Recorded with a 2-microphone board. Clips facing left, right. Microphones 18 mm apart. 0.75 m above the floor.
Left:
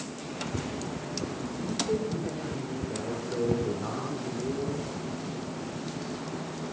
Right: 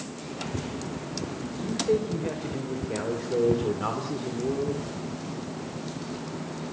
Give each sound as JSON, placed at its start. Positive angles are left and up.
{"t": 1.6, "sound": "a man speaking", "side_deg": -50, "distance_m": 4.0}